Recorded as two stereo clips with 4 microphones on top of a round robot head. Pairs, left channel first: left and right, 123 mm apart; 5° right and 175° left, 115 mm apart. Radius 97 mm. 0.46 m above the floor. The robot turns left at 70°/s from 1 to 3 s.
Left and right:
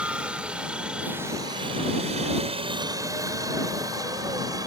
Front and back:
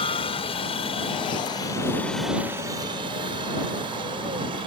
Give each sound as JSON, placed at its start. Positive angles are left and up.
{"t": 0.0, "sound": "a helicopter", "azimuth_deg": -10}